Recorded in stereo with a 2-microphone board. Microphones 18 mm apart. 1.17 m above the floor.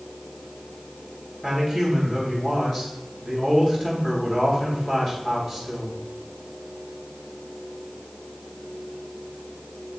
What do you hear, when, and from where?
1.4 s a man speaking: 15° left (ahead or behind), 3 m